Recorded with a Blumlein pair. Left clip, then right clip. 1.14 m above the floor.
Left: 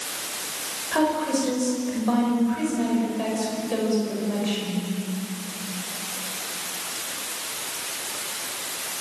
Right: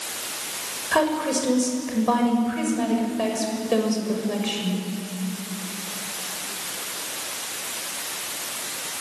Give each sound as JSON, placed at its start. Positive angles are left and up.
{"t": 0.9, "sound": "a woman speaking", "azimuth_deg": -20, "distance_m": 6.5}